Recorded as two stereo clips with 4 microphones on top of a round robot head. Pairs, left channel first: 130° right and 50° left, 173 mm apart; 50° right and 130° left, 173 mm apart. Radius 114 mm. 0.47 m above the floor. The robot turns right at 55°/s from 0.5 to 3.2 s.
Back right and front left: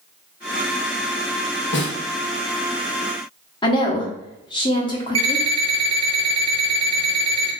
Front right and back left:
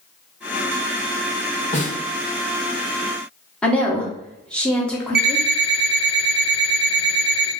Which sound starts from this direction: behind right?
A woman speaking, at 3.6 s.